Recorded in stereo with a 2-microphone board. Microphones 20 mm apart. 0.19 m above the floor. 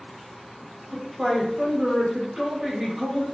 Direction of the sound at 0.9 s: 25° right (ahead or behind).